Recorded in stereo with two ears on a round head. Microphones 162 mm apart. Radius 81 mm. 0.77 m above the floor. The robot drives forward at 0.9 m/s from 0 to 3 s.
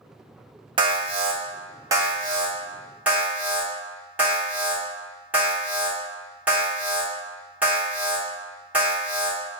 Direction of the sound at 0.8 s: 25° right (ahead or behind).